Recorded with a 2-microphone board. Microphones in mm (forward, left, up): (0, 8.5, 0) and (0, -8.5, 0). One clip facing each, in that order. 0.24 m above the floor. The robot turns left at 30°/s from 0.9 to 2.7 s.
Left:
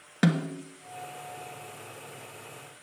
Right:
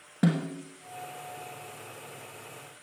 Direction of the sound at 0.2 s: 60° left (ahead or behind).